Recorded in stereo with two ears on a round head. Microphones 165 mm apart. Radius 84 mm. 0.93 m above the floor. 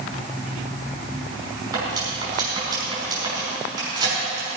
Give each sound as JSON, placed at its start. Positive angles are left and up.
{"t": 1.7, "sound": "cutlery clinking", "side_deg": -20, "distance_m": 5.0}